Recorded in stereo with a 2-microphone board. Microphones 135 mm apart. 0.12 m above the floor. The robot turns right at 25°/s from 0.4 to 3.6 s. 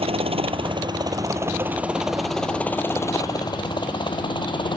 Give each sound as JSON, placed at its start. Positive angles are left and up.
{"t": 0.0, "sound": "a helicopter", "side_deg": -45}